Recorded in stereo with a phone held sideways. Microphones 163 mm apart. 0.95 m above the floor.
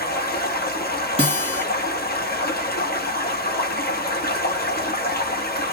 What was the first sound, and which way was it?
Running water, 70° left (ahead or behind).